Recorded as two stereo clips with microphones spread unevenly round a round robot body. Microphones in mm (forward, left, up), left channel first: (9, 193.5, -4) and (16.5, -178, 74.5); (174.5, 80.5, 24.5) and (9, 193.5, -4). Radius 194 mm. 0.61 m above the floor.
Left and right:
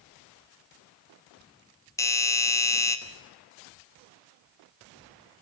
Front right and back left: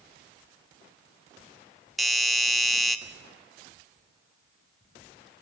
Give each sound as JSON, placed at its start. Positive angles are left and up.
{"t": 2.0, "sound": "a doorbell", "azimuth_deg": 80, "distance_m": 1.4}